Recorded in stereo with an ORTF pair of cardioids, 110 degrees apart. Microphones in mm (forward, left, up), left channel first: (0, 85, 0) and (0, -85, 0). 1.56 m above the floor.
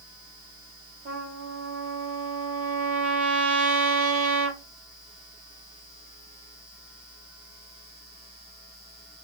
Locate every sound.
1.1 s a trumpet: 55° right, 3 m